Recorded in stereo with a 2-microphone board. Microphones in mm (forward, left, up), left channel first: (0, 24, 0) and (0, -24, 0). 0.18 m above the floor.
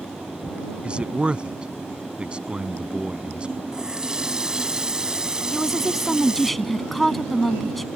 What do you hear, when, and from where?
0.8 s a man speaking: 25° right (ahead or behind)
3.7 s a running tap: 15° right (ahead or behind)
5.5 s a woman speaking: 5° left (ahead or behind)